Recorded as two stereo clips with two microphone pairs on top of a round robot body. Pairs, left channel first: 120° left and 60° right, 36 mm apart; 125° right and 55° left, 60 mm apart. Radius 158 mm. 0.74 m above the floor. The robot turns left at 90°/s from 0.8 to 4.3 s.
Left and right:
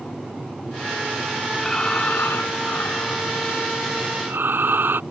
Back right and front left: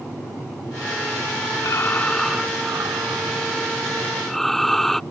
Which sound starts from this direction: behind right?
Breathing, at 1.6 s.